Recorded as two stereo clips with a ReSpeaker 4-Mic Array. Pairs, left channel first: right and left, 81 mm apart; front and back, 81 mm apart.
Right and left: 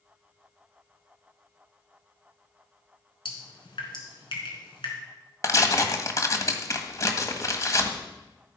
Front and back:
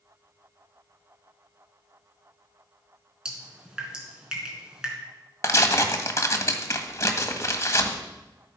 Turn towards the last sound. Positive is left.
turn(degrees=-45)